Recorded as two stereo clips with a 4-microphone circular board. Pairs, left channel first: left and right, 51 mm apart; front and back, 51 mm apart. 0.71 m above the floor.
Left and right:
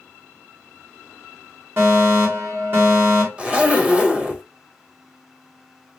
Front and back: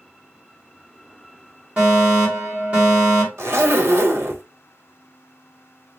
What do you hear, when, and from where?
1.8 s a fire alarm: 120° right, 2.5 m
3.4 s a zipper: 155° right, 0.9 m